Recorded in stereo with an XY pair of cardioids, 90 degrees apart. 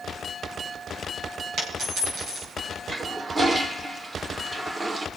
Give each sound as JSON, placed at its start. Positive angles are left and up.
{"t": 1.6, "sound": "a dropped coin", "azimuth_deg": -65, "distance_m": 7.0}
{"t": 2.9, "sound": "a toilet flushing", "azimuth_deg": -30, "distance_m": 1.3}